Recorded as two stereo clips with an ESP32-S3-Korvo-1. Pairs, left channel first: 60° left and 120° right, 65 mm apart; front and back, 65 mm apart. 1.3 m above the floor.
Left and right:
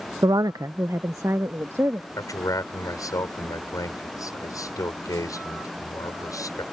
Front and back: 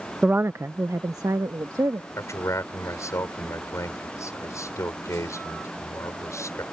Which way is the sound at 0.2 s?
105° right.